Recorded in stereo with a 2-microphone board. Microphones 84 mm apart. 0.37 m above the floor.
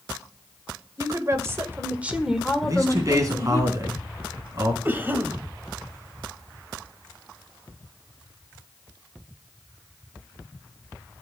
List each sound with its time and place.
1.0 s a woman speaking: 45° right (ahead or behind), 1.8 m; by 3.6 s 30° left (ahead or behind), 1.6 m
2.6 s a man speaking: 40° right (ahead or behind), 3.5 m
4.8 s a cough: 25° right (ahead or behind), 1.7 m